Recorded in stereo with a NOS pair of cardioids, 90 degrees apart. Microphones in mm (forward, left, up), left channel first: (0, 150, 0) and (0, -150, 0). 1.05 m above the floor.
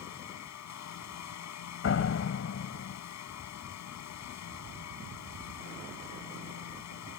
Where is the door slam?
50° left.